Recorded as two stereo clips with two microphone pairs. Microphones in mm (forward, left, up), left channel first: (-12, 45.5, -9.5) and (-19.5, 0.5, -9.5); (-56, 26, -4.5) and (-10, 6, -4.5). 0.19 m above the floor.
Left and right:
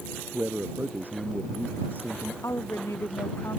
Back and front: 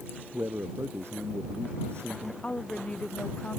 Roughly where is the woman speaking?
Left.